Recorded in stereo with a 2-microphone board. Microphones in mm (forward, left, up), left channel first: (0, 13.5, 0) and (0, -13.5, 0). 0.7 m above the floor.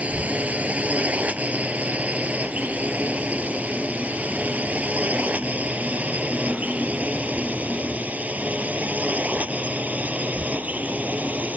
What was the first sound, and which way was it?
A drone, 70° right (ahead or behind).